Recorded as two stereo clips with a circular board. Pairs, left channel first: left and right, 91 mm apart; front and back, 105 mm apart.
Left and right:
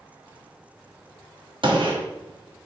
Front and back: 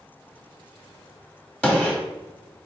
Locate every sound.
1.6 s a gunshot: 80° right, 1.3 m